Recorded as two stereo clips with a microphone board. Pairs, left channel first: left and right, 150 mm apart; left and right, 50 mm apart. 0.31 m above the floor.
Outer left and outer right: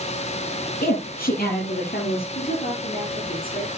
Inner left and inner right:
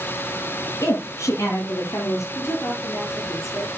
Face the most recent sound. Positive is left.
turn(degrees=80)